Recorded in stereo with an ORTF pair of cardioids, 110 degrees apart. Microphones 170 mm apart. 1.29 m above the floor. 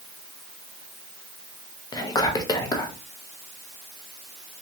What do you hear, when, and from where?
1.9 s whispering: 20° left, 0.8 m